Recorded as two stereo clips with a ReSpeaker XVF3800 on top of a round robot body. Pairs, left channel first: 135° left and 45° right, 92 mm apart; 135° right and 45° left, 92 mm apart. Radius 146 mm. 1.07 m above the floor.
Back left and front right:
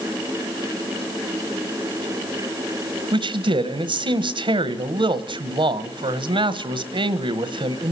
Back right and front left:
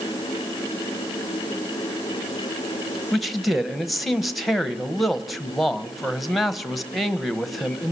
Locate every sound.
3.1 s a man speaking: 45° right, 1.5 m